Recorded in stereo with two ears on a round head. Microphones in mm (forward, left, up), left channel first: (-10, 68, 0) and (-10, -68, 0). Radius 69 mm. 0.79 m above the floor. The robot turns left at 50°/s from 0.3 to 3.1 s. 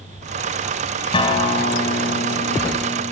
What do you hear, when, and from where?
1.1 s a guitar: 150° left, 2.5 m; by 3.1 s 50° left, 2.5 m